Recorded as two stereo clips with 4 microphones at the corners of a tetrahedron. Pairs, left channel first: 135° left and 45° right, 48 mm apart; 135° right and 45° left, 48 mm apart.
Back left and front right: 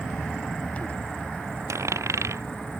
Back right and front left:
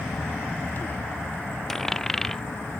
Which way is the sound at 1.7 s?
50° right.